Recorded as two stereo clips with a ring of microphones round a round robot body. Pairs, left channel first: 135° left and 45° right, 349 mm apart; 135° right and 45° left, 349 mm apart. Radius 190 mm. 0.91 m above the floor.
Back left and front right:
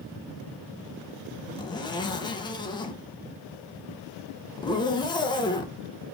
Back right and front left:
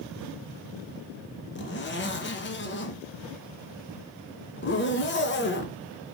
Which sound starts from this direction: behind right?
A zipper, at 1.6 s.